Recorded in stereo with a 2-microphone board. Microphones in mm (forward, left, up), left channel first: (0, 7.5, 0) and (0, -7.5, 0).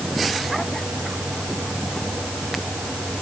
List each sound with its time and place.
Only background noise.